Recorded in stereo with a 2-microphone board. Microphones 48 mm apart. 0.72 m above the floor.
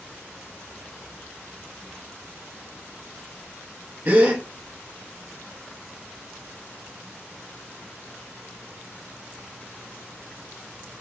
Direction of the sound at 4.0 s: 35° right (ahead or behind).